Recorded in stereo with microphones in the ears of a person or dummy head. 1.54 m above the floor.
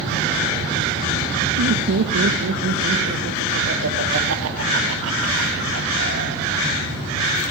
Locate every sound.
1.6 s laughter: 70° right (ahead or behind), 1.6 m; by 7.0 s 80° right, 5 m